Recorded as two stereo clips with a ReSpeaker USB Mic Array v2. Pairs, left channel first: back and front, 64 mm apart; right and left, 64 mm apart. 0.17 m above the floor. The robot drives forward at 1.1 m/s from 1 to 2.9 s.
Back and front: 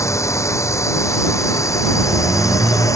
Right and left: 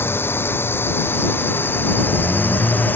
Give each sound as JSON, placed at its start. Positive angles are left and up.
{"t": 0.0, "sound": "a drone", "azimuth_deg": -145}